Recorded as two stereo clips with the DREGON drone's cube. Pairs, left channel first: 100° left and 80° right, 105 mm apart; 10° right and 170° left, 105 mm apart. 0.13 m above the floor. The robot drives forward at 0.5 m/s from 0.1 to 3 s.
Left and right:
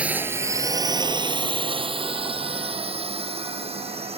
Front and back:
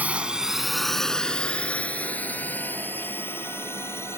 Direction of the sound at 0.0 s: 140° right.